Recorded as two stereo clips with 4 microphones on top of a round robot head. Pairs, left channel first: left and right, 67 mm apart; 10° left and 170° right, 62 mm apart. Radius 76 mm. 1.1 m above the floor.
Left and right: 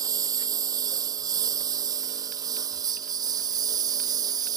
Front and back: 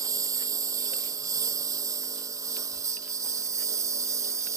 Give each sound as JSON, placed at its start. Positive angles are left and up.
{"t": 0.0, "sound": "a lawn mower", "azimuth_deg": -130}